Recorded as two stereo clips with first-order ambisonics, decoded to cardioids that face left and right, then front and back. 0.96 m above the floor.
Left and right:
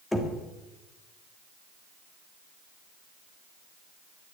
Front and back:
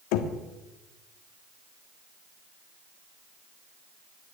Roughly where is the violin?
No violin in this recording.